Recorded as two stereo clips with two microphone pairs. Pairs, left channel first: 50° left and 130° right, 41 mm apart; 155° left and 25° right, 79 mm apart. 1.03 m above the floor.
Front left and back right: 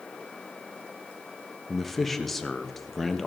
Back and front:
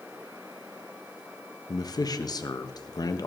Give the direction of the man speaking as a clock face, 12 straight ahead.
8 o'clock.